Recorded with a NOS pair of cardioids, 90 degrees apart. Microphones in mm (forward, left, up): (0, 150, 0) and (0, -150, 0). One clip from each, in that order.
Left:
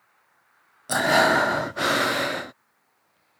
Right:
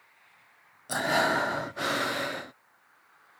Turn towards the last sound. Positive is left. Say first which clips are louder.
# left 7 dB
turn(degrees=30)